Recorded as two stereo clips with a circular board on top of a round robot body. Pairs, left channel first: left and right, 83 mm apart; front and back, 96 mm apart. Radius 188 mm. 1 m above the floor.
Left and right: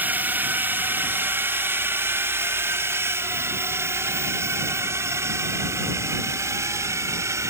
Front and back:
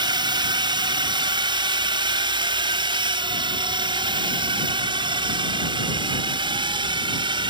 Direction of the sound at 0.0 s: 155° right.